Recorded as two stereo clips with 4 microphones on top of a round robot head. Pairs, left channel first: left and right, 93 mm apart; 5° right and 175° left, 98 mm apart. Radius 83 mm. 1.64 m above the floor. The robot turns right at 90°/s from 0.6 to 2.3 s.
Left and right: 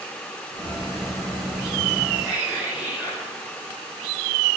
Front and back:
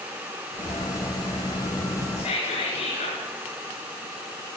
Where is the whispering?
20° right, 8 m; by 3.2 s 5° right, 8 m.